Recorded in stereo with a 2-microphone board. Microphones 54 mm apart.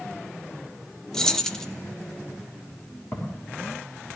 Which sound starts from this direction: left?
Footsteps, at 3.1 s.